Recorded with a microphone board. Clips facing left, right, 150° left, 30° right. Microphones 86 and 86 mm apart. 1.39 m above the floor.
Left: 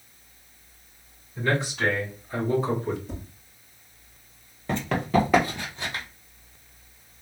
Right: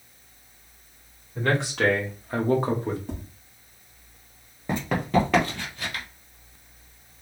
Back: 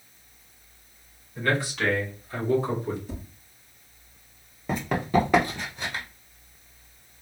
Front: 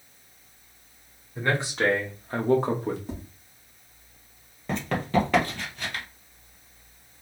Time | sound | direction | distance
1.4 | a man speaking | 100° right | 1.9 m
3.1 | tapping | 70° right | 2 m
4.7 | running footsteps | 140° right | 1.4 m